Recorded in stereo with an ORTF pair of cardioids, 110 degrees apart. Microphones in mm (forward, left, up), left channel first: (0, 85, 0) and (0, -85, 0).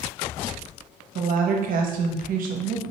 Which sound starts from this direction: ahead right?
A woman speaking, at 1.1 s.